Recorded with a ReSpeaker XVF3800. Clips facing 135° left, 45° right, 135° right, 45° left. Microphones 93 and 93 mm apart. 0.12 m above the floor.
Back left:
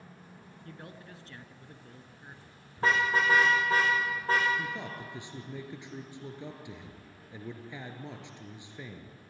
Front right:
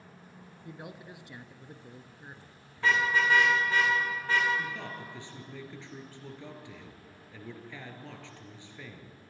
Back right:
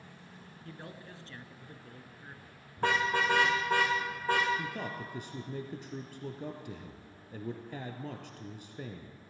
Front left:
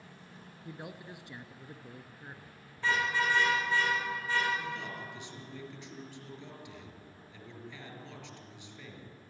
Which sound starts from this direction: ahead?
A man speaking, at 0.7 s.